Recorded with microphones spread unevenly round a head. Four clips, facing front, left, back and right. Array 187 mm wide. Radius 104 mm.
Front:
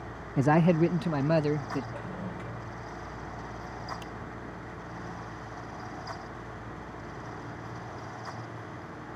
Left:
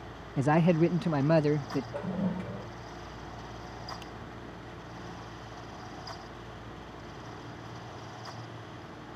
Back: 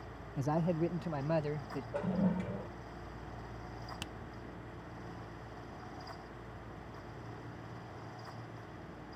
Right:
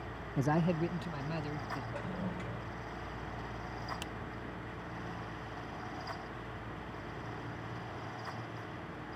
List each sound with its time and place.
0.4 s a man speaking: straight ahead; by 1.8 s 55° left
1.9 s a toilet flushing: 135° left
4.0 s a finger snap: 160° right